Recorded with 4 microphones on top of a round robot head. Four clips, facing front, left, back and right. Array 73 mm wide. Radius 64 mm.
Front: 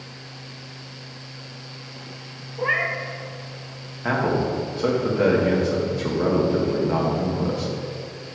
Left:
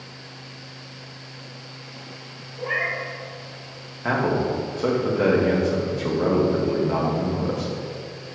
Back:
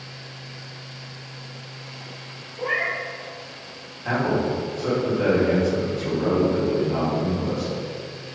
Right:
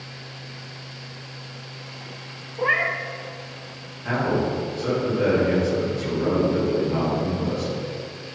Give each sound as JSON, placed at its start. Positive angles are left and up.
{"t": 2.6, "sound": "a cat meowing", "azimuth_deg": -60, "distance_m": 0.6}
{"t": 4.0, "sound": "a man speaking", "azimuth_deg": 40, "distance_m": 2.0}